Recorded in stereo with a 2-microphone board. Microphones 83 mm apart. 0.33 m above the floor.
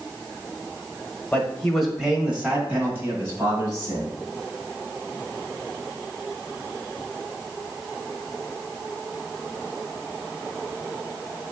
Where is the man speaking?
10° left (ahead or behind), 1.4 m; by 4.1 s 35° right (ahead or behind), 2.5 m.